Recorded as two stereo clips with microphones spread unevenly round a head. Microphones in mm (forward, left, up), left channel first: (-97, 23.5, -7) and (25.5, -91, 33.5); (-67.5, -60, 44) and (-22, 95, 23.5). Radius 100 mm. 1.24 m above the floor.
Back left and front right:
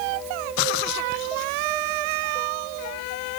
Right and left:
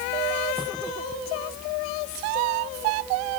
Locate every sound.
Only background noise.